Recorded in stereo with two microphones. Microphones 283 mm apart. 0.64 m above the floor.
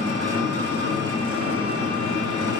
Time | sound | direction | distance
0.0 | an engine running | 70° right (ahead or behind) | 1.3 m